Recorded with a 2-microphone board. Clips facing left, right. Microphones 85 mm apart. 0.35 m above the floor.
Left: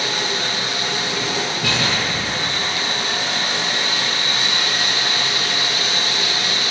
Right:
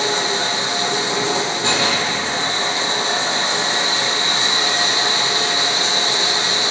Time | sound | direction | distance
0.0 | running water | 25° right (ahead or behind) | 0.8 m
1.6 | an explosion | 40° left (ahead or behind) | 1.1 m